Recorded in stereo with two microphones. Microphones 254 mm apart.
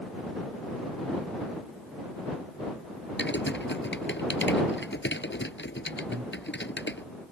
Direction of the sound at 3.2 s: 45° left (ahead or behind).